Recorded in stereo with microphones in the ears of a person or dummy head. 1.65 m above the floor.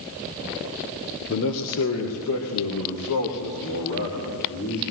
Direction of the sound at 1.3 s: 60° left (ahead or behind).